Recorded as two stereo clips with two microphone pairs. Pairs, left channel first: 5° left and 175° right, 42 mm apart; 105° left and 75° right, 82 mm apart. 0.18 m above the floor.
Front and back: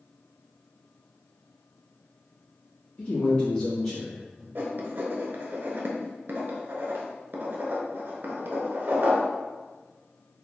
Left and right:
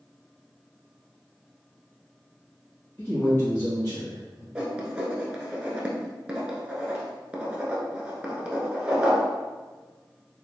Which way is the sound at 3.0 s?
50° left.